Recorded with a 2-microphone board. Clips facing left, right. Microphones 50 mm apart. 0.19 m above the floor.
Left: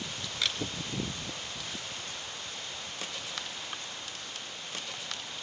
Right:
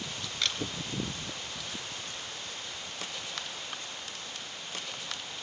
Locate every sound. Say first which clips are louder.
0.4 s a camera shutter: even; 5° left (ahead or behind), 3 m